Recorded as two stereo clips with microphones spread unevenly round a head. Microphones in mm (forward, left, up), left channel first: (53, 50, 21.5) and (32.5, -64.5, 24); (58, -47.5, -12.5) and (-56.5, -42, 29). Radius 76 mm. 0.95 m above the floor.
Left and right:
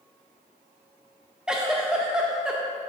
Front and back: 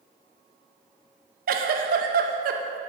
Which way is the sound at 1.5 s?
175° left.